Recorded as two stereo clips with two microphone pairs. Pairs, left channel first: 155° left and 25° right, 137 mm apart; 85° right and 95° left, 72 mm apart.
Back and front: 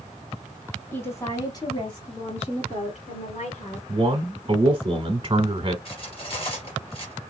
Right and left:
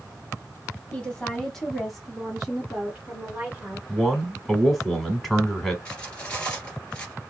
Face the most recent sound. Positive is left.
turn(degrees=-160)